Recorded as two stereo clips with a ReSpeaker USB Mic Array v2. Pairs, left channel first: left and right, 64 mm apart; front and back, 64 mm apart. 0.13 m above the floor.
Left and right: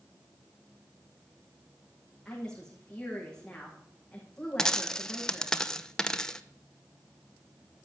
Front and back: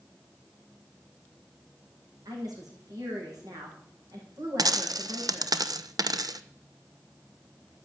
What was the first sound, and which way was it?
A woman speaking, 170° left.